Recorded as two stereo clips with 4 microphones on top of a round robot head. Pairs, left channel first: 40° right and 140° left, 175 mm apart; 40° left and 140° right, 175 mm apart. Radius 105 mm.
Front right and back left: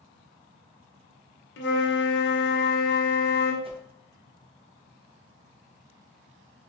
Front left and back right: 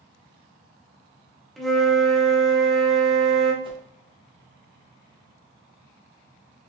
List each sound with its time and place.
1.6 s a flute: 50° right, 0.7 m
3.6 s a whoosh: 175° left, 0.8 m